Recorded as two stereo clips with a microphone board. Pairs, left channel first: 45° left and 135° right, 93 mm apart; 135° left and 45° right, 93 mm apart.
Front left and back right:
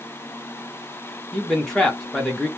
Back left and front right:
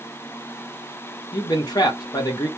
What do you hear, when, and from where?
1.3 s a man speaking: 130° left, 1.2 m